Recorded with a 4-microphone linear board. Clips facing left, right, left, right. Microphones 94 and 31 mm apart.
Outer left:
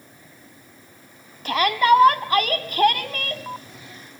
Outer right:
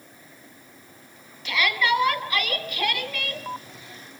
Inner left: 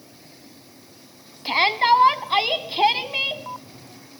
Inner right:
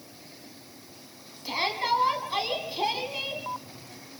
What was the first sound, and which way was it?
A shout, 45° left (ahead or behind).